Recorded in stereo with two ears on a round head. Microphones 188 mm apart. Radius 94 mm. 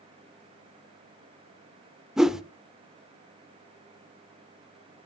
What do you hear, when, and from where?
2.2 s a whoosh: centre (ahead or behind), 0.6 m